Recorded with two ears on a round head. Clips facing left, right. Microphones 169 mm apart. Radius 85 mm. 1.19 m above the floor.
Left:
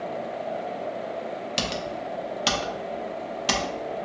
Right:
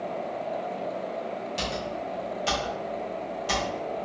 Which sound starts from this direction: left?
Typing on a keyboard, at 1.6 s.